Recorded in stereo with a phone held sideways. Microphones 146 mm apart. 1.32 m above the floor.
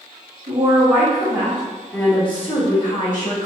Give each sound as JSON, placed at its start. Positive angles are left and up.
{"t": 0.5, "sound": "a woman speaking", "side_deg": -50, "distance_m": 1.3}